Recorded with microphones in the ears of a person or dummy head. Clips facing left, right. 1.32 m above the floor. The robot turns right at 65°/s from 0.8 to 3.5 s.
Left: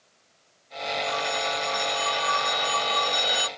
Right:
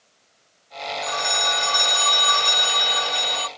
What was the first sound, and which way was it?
A phone ringing, 140° right.